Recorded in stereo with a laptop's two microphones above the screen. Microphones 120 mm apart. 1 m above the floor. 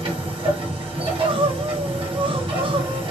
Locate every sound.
0.0 s a machine running: 50° right (ahead or behind), 1.7 m
1.0 s crying: 45° right (ahead or behind), 0.7 m